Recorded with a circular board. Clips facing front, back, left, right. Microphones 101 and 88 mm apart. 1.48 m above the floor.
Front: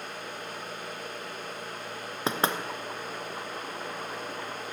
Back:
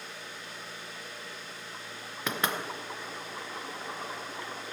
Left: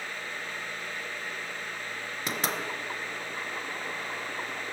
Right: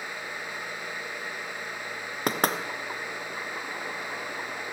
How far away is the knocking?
About 1.0 m.